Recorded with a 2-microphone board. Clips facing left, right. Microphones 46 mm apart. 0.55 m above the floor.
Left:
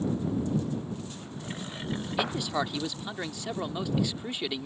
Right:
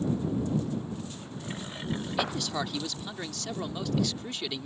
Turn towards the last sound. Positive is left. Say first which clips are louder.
# left 3 dB
turn(degrees=15)  # may be behind; listen again after turning